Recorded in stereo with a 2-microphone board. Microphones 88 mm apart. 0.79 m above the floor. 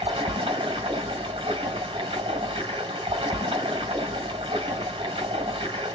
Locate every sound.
0.0 s running water: 80° right, 1.5 m